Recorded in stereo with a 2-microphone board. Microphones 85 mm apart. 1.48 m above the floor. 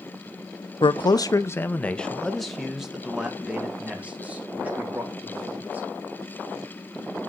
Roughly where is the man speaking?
Left.